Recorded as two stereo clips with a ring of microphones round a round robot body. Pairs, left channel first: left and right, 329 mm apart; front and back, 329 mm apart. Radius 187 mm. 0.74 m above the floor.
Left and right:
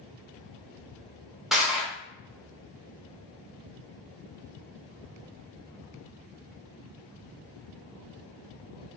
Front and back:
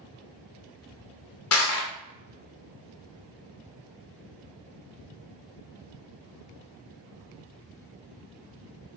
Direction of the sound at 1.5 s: Straight ahead.